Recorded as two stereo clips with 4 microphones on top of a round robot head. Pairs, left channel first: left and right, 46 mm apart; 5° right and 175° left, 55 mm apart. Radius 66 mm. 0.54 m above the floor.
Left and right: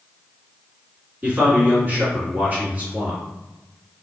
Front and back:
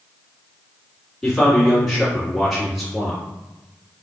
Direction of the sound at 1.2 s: 90° right.